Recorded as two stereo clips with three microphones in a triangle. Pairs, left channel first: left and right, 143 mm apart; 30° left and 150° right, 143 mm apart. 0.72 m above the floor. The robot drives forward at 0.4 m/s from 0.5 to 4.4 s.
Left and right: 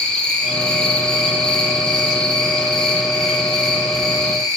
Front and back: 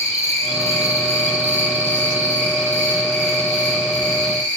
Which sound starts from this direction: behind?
An insect, at 0.0 s.